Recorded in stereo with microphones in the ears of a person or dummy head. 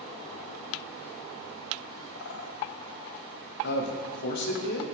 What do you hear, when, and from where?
2.1 s a bird: 70° left (ahead or behind), 0.7 m
3.6 s a man speaking: 60° left (ahead or behind), 0.8 m